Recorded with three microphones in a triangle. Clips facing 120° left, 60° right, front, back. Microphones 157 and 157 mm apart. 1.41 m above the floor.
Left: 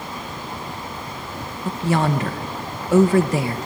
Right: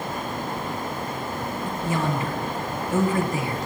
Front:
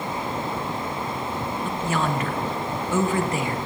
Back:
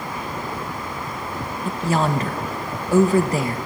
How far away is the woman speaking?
About 1.1 m.